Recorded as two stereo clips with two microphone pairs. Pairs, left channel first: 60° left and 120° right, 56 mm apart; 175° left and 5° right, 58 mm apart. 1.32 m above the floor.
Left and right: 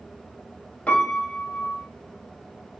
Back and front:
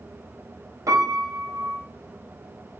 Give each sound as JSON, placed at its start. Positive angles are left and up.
{"t": 0.9, "sound": "a piano", "azimuth_deg": -5, "distance_m": 0.5}